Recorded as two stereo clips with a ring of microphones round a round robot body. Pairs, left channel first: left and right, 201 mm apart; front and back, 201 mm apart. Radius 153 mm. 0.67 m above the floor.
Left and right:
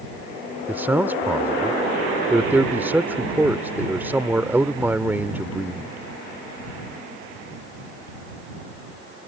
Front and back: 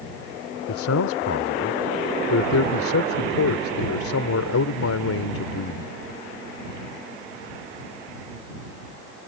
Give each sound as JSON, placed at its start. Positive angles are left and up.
{"t": 0.7, "sound": "a man speaking", "azimuth_deg": -10}